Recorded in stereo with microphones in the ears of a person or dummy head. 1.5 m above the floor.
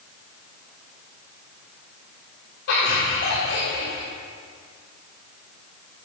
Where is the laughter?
80° left, 4.5 m; by 4.1 s 65° left (ahead or behind), 5.5 m.